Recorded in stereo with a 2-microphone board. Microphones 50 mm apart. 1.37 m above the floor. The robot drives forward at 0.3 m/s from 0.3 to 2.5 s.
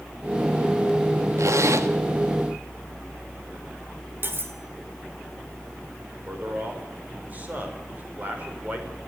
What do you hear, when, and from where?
1.4 s a zipper: 75° right (ahead or behind), 1.7 m; by 1.9 s 70° right (ahead or behind), 1.7 m
4.2 s cutlery clinking: 45° right (ahead or behind), 3 m
6.3 s a man speaking: 30° right (ahead or behind), 5.5 m